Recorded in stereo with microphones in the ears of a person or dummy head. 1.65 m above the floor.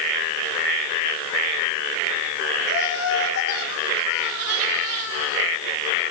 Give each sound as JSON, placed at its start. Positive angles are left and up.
{"t": 2.7, "sound": "laughter", "side_deg": 85, "distance_m": 5.0}